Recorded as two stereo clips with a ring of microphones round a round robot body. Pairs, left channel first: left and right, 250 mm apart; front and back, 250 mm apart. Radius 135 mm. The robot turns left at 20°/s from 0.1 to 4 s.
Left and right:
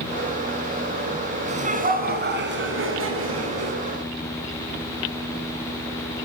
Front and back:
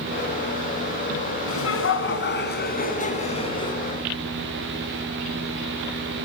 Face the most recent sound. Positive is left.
turn(degrees=-80)